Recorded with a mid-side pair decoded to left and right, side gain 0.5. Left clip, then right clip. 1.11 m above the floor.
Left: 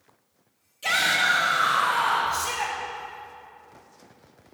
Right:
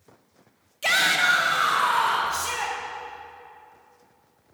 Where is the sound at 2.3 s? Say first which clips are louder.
Even; 25° right, 3 m.